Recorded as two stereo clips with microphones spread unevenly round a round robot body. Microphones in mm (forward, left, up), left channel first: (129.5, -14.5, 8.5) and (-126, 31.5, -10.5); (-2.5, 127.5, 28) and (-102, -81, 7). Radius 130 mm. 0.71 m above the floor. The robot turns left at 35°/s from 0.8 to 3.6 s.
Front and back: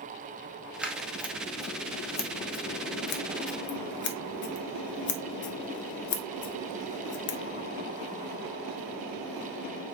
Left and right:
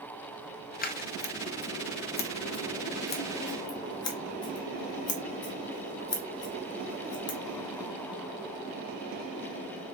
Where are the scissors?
90° left, 0.8 m; by 7.4 s 5° right, 0.8 m.